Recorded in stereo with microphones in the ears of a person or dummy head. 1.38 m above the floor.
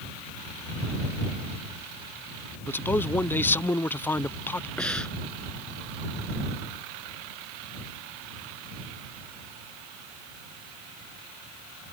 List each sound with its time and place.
2.7 s a man speaking: 10° left (ahead or behind)
4.8 s breathing: 10° left (ahead or behind)